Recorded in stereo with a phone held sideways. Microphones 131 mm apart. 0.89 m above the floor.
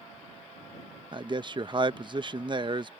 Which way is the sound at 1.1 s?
35° right (ahead or behind).